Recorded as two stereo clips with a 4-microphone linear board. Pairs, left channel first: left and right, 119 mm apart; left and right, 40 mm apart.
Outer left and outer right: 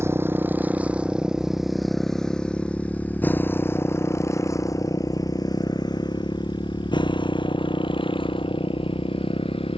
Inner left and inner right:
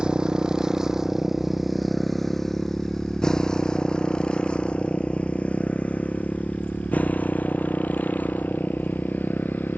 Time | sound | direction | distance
0.0 | a motorcycle | 20° right (ahead or behind) | ?